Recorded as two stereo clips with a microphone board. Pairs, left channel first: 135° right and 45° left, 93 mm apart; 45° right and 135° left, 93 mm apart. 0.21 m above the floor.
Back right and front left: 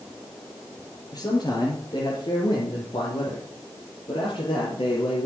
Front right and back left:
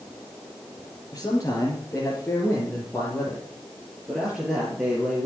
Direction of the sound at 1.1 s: 100° right.